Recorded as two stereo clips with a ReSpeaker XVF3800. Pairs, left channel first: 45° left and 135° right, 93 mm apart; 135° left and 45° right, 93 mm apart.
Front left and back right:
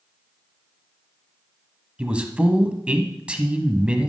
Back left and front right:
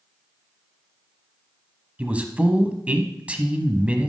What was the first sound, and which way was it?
A man speaking, 85° right.